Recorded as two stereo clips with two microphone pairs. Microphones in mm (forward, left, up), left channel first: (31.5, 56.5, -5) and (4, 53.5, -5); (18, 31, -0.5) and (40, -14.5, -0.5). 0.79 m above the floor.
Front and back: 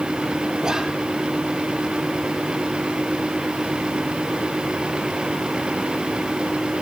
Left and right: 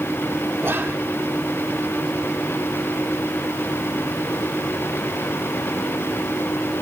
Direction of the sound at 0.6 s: 105° right.